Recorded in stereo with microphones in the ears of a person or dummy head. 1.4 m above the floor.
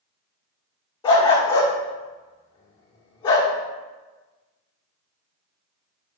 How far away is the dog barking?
About 1.4 m.